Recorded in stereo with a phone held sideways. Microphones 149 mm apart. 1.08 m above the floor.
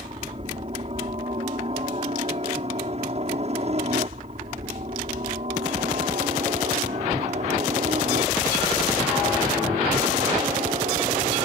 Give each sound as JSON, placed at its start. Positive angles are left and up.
{"t": 0.0, "sound": "a helicopter", "side_deg": -45}